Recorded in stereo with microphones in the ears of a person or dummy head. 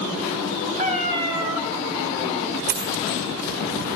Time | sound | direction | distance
0.8 | a cat meowing | 30° right (ahead or behind) | 1.4 m
2.7 | a dropped coin | 65° right (ahead or behind) | 2.5 m